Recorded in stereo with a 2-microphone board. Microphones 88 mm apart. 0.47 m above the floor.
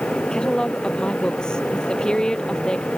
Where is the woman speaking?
10° left (ahead or behind).